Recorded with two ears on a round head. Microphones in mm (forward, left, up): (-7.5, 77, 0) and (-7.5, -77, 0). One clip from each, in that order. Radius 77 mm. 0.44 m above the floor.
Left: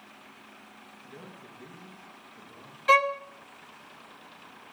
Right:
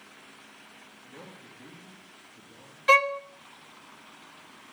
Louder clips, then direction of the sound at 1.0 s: Even; 35° left (ahead or behind).